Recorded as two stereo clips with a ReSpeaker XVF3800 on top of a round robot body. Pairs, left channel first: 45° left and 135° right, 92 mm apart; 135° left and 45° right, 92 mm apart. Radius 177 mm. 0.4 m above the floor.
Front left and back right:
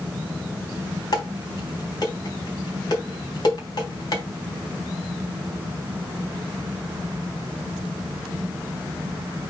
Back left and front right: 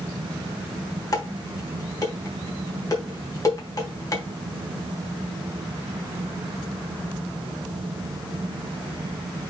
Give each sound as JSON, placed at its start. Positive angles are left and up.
{"t": 1.1, "sound": "dishes clattering", "azimuth_deg": 90, "distance_m": 3.5}